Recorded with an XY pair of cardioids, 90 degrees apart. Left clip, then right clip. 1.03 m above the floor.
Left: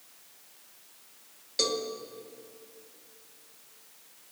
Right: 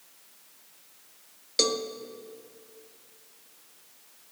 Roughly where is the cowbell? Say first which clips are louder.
Right 3 dB; ahead right.